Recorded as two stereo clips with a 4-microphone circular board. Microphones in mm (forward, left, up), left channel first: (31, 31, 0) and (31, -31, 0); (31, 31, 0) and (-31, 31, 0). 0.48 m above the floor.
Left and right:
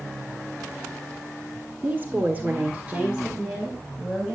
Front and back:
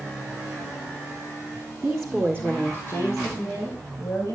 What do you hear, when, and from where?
1.8 s a woman speaking: 110° right, 1.4 m; by 4.3 s 10° right, 3.5 m